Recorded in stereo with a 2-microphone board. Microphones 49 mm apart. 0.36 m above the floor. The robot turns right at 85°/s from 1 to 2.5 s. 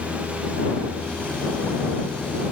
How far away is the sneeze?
I don't hear a sneeze.